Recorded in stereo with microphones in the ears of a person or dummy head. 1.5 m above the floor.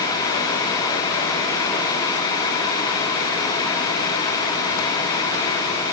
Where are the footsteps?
I don't hear footsteps.